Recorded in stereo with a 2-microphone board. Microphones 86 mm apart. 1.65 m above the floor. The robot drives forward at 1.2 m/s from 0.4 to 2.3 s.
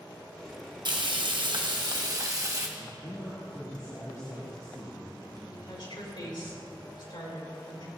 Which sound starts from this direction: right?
Frying, at 0.8 s.